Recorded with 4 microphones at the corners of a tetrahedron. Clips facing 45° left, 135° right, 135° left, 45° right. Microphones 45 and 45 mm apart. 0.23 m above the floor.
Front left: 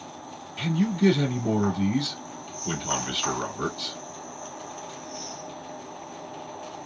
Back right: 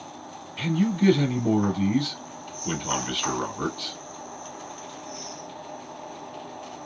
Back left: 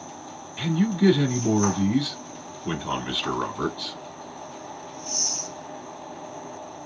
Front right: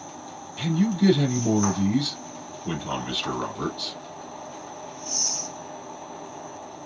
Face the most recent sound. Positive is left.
turn(degrees=165)